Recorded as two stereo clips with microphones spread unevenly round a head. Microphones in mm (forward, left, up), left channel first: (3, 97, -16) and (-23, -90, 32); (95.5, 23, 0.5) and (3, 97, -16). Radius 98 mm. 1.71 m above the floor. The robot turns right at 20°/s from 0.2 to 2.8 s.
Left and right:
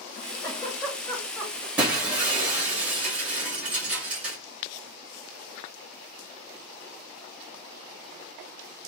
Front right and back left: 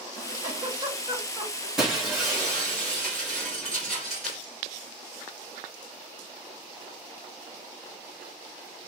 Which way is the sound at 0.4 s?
175° left.